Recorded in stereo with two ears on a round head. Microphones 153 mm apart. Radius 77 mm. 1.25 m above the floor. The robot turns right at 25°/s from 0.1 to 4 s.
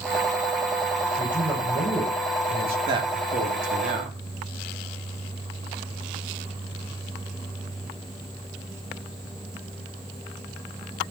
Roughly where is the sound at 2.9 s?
Right.